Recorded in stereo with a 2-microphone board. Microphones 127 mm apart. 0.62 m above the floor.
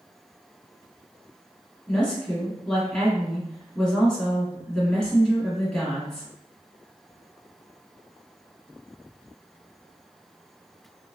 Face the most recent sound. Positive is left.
turn(degrees=5)  # may be behind; listen again after turning